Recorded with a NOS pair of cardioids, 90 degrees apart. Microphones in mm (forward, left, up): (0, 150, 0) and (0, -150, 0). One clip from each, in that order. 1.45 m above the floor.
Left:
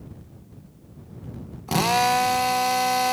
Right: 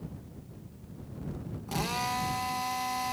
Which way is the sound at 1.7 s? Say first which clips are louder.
Left 12 dB; 70° left.